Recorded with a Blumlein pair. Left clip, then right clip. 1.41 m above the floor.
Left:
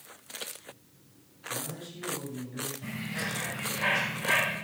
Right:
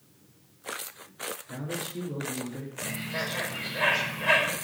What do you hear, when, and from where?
1.5 s a man speaking: 30° right, 3 m
2.8 s a bird: 50° right, 5 m